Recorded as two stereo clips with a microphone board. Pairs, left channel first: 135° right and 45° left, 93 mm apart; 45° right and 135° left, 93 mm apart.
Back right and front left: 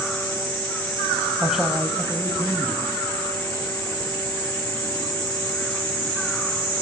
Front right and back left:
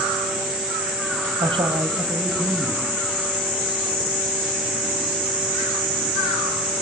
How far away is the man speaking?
About 3 m.